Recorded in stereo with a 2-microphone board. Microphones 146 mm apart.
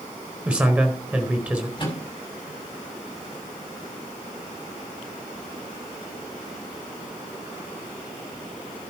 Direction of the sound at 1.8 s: 30° left (ahead or behind).